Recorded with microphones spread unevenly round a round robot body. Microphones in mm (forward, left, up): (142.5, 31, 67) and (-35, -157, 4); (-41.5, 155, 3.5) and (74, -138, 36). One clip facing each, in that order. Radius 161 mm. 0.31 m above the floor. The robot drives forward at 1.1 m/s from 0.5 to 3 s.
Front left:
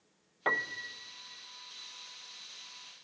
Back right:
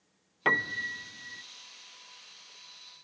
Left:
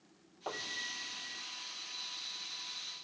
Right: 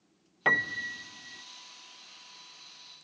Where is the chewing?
No chewing in this recording.